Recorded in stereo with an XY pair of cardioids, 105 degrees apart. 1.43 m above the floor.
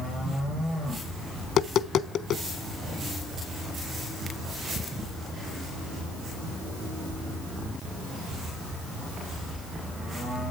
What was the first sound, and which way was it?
Tapping, 70° left.